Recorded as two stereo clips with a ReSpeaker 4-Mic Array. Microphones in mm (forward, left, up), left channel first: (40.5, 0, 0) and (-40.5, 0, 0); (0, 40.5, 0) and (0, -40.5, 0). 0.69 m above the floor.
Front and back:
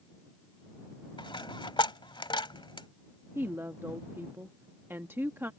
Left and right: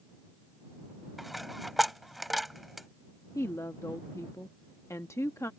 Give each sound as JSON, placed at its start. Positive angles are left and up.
{"t": 1.2, "sound": "a dropped coin", "azimuth_deg": 0}
{"t": 3.4, "sound": "a woman speaking", "azimuth_deg": 125}